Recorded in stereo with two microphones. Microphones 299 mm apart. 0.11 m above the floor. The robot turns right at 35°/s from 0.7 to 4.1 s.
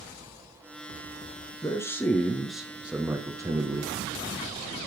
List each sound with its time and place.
1.6 s a man speaking: 10° left (ahead or behind), 1.1 m; by 4.8 s 15° right (ahead or behind), 1.1 m